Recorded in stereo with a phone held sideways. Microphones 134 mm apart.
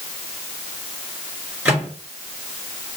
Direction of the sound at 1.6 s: 10° right (ahead or behind).